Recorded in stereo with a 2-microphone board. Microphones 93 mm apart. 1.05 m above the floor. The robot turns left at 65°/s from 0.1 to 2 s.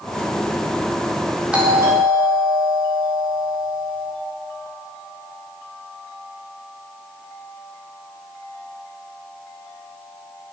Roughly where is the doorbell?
Ahead.